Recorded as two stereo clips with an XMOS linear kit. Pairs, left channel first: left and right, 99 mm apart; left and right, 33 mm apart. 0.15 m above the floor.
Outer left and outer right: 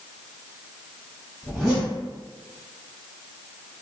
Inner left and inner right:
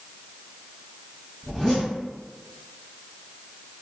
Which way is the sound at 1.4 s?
Centre (ahead or behind).